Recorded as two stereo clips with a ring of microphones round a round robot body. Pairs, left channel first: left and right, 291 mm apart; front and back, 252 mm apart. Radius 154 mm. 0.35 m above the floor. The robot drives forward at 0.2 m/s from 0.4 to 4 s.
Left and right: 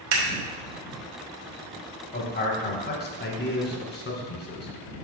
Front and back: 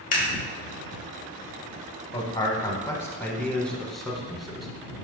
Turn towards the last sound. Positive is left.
turn(degrees=90)